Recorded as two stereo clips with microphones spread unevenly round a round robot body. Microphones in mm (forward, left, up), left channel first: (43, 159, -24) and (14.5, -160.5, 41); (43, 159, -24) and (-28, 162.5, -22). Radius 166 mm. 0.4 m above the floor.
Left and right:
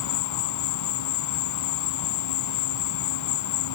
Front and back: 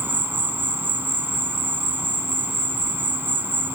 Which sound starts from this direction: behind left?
An insect, at 0.0 s.